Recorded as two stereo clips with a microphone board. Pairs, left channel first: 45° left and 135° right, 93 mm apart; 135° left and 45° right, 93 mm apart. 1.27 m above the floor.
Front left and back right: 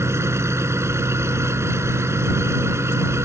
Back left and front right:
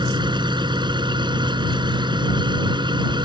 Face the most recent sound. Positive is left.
turn(degrees=-75)